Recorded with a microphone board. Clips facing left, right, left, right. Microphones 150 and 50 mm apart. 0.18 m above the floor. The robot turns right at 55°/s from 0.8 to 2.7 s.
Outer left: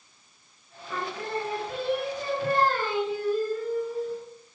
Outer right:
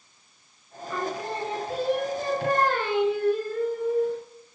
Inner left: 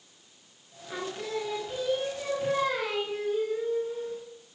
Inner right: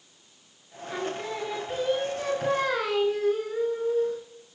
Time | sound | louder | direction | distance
0.9 | singing | outer right 2 dB, inner right 2 dB | straight behind | 1.4 m